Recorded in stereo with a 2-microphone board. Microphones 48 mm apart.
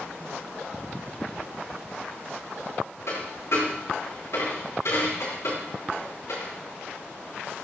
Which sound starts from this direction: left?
A dropped coin, at 3.1 s.